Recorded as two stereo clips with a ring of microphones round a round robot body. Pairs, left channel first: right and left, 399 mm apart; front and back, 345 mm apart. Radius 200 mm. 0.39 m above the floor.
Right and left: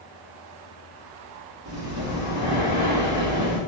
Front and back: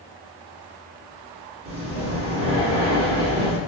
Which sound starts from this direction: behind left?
Breathing, at 1.6 s.